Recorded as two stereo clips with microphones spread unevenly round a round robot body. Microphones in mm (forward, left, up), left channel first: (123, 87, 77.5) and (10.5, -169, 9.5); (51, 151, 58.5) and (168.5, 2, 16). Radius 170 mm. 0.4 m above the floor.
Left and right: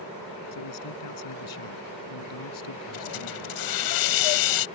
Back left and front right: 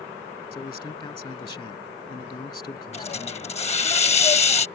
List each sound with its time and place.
0.5 s a man speaking: 60° left
2.9 s a hiss: 65° left